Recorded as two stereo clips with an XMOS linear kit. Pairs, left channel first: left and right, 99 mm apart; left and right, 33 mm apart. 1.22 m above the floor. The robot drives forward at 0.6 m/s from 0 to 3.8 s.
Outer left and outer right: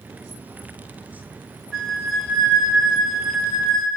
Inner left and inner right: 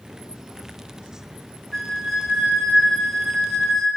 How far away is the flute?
About 4 m.